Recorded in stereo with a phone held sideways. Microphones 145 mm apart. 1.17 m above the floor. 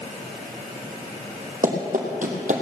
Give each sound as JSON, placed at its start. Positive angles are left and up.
{"t": 1.6, "sound": "running footsteps", "side_deg": -65, "distance_m": 3.0}